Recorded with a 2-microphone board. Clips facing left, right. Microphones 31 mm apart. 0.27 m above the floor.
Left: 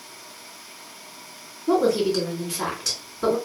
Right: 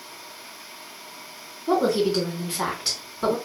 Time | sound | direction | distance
1.7 | a woman speaking | 25° right (ahead or behind) | 2.0 m